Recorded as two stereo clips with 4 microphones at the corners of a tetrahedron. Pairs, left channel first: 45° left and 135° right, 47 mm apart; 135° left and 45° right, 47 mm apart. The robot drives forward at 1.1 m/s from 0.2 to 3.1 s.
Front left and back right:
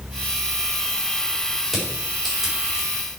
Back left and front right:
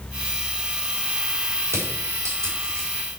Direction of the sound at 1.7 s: 50° right.